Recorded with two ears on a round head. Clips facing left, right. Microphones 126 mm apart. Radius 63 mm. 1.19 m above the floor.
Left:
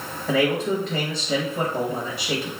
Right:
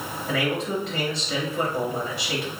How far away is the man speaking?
About 1.0 m.